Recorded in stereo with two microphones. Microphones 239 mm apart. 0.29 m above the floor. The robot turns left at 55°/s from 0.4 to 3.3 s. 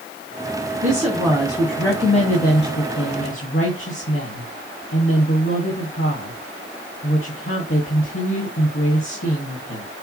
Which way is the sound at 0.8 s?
140° right.